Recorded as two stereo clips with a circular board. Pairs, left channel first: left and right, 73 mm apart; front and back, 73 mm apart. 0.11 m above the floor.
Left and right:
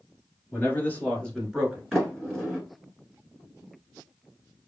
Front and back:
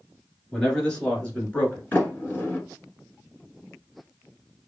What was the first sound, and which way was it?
A man speaking, 75° left.